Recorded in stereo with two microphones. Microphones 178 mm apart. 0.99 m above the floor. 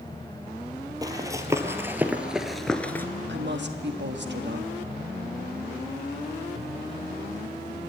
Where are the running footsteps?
20° right (ahead or behind), 1.7 m; by 3.1 s 10° left (ahead or behind), 1.0 m.